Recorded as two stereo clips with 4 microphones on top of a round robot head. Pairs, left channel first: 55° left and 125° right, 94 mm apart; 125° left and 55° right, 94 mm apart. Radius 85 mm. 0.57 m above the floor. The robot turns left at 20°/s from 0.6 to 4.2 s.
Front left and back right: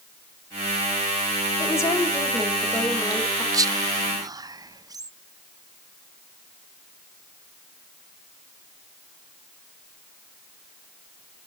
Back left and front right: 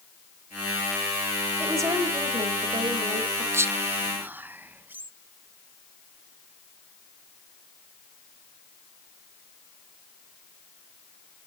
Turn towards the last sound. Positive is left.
turn(degrees=-120)